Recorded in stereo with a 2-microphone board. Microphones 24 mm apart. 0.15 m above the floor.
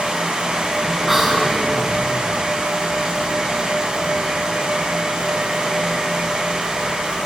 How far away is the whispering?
About 1.1 m.